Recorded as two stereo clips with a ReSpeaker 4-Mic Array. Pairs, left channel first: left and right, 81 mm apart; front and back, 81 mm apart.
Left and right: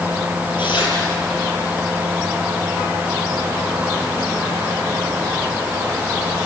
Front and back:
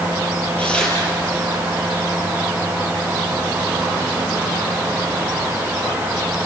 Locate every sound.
0.6 s tearing paper: 75° left, 6.5 m